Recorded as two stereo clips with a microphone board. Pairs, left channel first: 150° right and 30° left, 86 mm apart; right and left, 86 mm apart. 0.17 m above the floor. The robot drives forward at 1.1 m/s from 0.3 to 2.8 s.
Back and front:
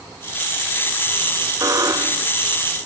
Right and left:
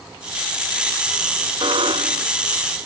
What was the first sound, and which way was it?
A buzzer, 80° left.